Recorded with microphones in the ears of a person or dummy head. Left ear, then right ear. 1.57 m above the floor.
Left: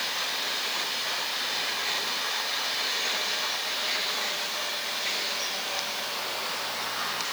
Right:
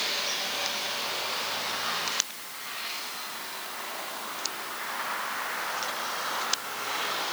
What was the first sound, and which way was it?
Only background noise.